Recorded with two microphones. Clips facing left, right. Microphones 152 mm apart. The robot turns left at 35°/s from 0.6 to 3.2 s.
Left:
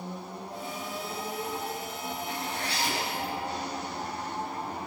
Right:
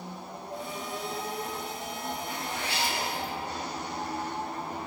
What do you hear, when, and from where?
2.3 s a zipper: 160° left, 7.5 m; by 3.3 s 125° left, 7.5 m